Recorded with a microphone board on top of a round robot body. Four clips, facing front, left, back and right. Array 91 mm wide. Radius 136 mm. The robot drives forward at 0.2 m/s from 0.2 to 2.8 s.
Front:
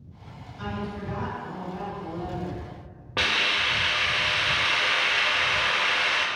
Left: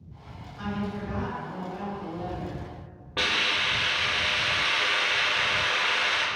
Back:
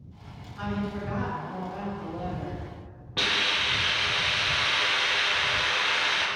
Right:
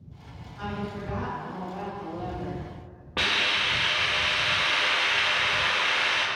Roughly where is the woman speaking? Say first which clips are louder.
Left 1 dB, back 2 dB; behind.